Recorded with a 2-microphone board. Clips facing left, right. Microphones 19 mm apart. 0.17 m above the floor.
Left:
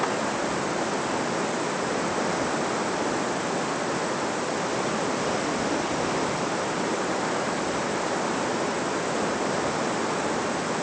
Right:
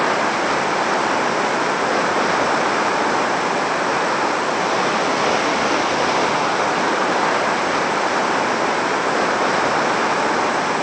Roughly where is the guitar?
I don't hear a guitar.